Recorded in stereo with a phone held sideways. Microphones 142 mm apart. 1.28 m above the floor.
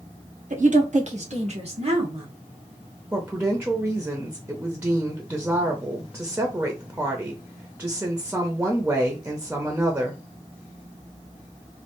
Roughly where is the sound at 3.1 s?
Centre.